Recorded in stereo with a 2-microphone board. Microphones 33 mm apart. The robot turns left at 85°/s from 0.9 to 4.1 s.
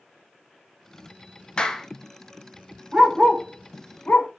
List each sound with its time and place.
1.6 s a clap: 30° left (ahead or behind), 0.9 m; by 1.9 s 5° left (ahead or behind), 0.9 m
2.9 s a dog barking: 35° right (ahead or behind), 1.9 m; by 4.3 s 55° left (ahead or behind), 1.9 m